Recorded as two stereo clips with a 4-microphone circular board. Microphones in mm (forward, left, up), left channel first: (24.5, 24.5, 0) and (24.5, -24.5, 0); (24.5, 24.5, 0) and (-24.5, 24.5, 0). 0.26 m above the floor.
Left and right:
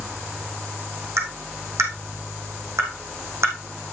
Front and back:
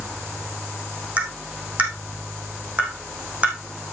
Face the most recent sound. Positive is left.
turn(degrees=-115)